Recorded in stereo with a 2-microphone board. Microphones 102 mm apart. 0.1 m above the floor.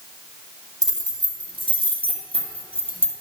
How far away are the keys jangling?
About 1.8 m.